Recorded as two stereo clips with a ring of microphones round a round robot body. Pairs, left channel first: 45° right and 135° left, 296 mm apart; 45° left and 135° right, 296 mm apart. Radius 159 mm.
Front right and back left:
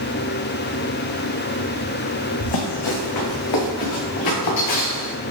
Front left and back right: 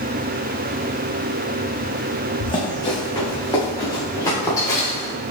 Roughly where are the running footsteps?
Ahead right.